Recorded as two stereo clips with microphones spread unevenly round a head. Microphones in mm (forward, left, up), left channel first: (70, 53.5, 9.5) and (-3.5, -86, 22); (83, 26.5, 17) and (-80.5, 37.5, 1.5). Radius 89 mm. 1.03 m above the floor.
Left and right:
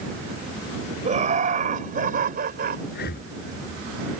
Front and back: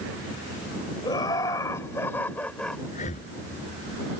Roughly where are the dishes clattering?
No dishes clattering in this recording.